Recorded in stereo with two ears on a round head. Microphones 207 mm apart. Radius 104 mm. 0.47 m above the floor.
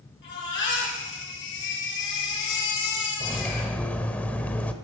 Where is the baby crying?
55° left (ahead or behind), 8 m.